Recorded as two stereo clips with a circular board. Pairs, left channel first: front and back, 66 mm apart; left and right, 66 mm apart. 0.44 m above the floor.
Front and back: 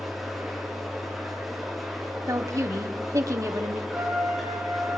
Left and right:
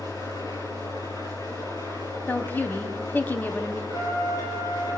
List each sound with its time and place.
0.0 s an engine running: 90° left, 9.5 m
2.3 s a woman speaking: 150° left, 2.5 m
3.9 s a trumpet: 105° left, 9 m